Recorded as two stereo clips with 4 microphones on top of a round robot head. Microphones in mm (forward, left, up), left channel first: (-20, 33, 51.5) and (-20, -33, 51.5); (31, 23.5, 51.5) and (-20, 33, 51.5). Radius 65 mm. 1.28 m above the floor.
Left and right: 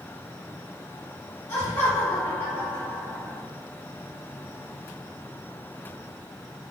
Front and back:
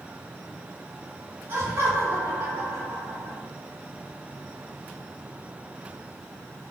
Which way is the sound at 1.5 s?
150° left.